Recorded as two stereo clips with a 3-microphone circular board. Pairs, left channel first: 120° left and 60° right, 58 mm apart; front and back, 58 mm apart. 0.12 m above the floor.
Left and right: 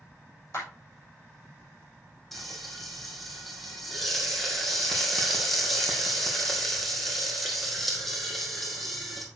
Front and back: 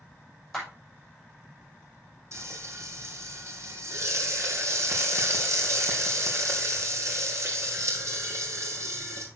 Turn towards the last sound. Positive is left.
turn(degrees=-150)